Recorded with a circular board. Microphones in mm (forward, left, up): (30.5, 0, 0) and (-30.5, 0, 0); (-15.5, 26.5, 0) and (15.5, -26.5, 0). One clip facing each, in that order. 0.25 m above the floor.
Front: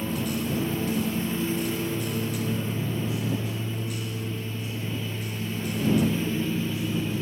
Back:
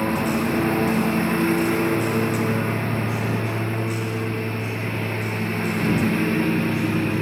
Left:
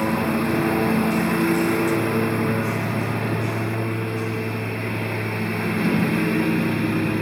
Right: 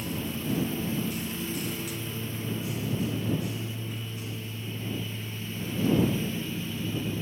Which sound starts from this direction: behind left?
A lawn mower, at 0.0 s.